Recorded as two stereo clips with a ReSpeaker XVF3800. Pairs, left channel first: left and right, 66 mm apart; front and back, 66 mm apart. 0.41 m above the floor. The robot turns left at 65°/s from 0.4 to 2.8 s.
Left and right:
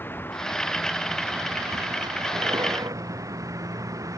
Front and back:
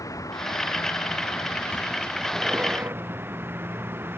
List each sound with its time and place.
0.0 s a vehicle: 30° left; by 4.2 s 125° right